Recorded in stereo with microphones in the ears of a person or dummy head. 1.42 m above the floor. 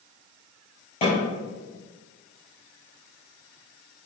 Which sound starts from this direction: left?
A snare drum, at 1.0 s.